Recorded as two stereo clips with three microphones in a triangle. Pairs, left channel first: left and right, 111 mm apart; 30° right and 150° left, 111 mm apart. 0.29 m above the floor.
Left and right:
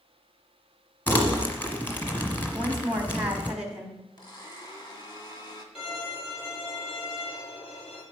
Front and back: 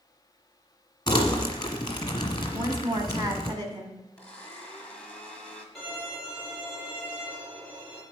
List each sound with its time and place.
1.1 s crumpling: 20° left, 1.3 m
2.5 s a woman speaking: 170° right, 2.0 m
4.2 s a blender: 45° left, 1.6 m
5.8 s a violin: 55° left, 5 m